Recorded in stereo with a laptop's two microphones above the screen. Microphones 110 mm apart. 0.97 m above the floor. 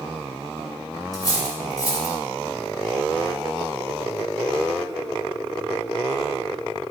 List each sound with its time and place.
1.1 s cutlery clinking: 35° left (ahead or behind), 1.9 m